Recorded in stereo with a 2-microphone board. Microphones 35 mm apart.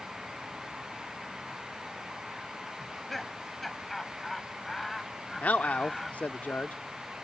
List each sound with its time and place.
2.8 s laughter: 5° left (ahead or behind)
5.4 s a man speaking: 50° left (ahead or behind)